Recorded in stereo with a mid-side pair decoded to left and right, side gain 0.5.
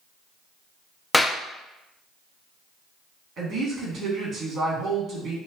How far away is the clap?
About 0.6 m.